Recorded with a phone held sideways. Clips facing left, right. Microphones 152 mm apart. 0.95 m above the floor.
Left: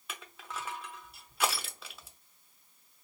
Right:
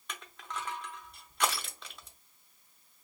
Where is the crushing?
5° left (ahead or behind), 0.8 m.